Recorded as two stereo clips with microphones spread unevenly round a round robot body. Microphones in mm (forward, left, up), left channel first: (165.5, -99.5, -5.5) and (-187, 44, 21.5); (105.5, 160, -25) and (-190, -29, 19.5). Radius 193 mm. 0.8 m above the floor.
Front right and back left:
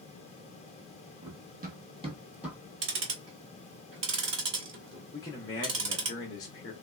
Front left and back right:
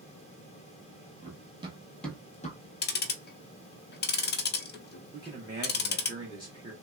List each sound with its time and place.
1.2 s running footsteps: 175° right, 0.9 m; by 2.6 s 75° left, 0.8 m
2.8 s ticking: 95° left, 0.6 m
5.1 s a man speaking: 70° right, 0.9 m